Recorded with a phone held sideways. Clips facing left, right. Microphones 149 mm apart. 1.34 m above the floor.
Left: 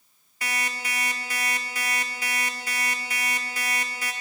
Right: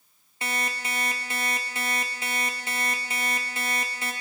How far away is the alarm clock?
About 0.9 m.